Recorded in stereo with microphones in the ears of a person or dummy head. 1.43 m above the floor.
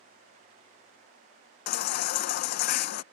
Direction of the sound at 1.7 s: 55° left (ahead or behind).